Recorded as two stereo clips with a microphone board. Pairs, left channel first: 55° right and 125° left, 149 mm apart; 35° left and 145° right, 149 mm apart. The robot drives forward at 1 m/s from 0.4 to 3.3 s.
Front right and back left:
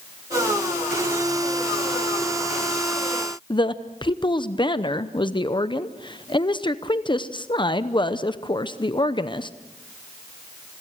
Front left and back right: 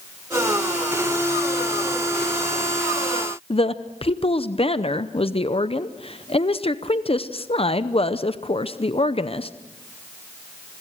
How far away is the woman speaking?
About 0.7 m.